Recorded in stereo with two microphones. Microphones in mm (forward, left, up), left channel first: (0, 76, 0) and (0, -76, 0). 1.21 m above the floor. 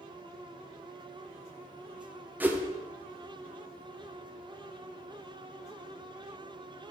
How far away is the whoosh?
About 0.7 m.